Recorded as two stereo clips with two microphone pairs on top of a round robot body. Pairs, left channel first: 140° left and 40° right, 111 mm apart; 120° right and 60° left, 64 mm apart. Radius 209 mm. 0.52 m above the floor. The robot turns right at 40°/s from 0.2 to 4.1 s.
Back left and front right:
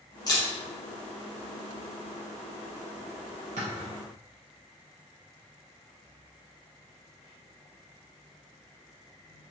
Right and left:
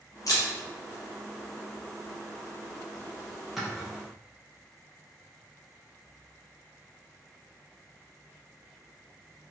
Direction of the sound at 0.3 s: 160° right.